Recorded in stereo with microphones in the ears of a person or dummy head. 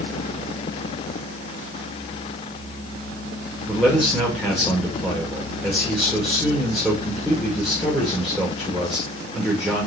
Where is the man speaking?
5° right (ahead or behind), 2.5 m.